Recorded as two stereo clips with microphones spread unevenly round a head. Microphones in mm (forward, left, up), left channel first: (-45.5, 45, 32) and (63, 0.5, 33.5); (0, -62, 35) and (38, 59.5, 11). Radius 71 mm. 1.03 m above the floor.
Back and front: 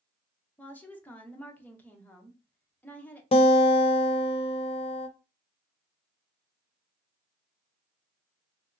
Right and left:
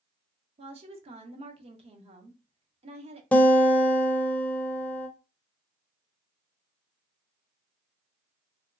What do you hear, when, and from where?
0.6 s a woman speaking: 85° left, 0.9 m
3.3 s a guitar: 170° left, 0.6 m